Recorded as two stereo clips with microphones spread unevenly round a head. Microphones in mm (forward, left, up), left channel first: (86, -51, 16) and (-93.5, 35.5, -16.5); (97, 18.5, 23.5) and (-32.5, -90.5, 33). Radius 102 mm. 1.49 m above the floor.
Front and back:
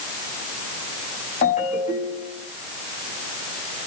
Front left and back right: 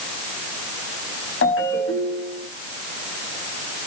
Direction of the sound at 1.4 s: 30° left.